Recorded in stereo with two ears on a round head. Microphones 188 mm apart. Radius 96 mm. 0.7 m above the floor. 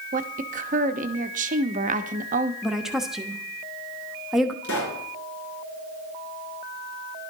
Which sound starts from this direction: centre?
A woman speaking, at 2.6 s.